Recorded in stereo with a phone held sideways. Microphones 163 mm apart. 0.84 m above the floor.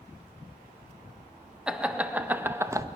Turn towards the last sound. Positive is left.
turn(degrees=-20)  # may be behind; listen again after turning